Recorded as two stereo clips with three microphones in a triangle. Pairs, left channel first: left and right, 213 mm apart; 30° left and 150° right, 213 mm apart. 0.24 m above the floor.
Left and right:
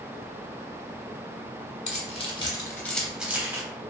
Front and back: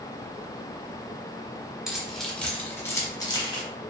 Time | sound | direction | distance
1.9 | keys jangling | 125° left | 0.8 m